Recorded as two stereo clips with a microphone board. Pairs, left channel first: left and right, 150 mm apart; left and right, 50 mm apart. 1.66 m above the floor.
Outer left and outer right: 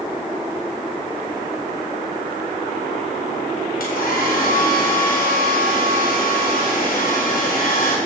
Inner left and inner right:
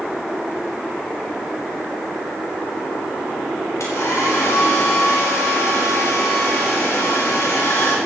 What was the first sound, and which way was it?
A hair dryer, 80° left.